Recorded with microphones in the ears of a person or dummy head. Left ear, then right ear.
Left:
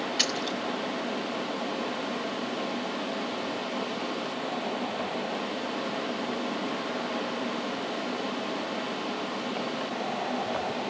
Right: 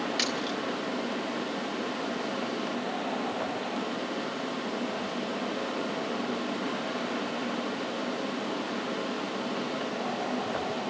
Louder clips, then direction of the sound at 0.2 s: Left 4 dB; 20° right (ahead or behind).